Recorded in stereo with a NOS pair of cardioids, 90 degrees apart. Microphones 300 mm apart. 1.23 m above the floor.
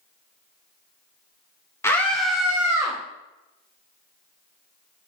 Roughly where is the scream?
Ahead.